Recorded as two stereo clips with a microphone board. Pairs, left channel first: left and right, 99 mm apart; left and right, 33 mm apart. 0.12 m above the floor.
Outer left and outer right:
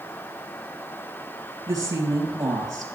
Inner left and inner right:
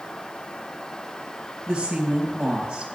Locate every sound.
1.7 s a woman speaking: 35° right (ahead or behind), 3 m